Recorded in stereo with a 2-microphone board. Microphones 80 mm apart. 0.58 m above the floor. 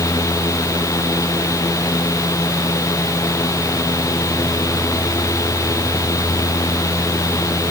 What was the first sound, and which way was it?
Only background noise.